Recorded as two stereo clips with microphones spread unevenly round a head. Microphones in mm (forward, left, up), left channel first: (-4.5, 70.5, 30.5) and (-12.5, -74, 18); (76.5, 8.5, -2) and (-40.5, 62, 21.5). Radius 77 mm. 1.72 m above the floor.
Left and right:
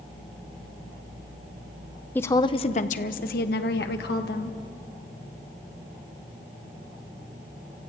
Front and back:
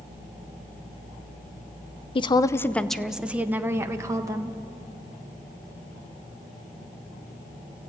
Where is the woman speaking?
15° left, 0.8 m; by 4.6 s 100° left, 1.9 m.